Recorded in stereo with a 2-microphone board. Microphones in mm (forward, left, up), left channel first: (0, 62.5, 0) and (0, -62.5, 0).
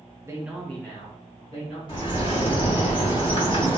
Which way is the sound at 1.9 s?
35° left (ahead or behind).